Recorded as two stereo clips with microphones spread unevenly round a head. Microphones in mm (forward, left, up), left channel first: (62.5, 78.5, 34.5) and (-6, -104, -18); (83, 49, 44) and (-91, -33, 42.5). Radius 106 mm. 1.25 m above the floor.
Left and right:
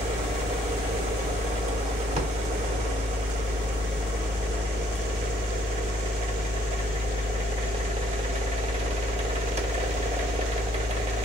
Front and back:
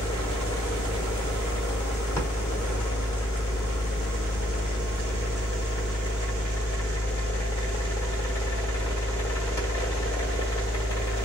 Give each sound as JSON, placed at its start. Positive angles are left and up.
{"t": 0.0, "sound": "a machine running", "azimuth_deg": -50, "distance_m": 1.2}